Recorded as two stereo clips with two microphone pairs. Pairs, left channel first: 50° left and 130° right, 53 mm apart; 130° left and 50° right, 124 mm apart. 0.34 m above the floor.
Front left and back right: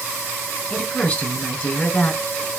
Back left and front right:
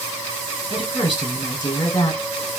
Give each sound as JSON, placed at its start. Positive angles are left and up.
{"t": 0.7, "sound": "a woman speaking", "azimuth_deg": 95, "distance_m": 1.6}